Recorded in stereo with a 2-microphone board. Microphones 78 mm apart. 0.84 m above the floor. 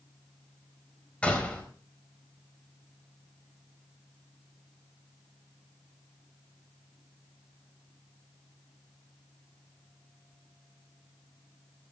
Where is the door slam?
15° left (ahead or behind), 4 m.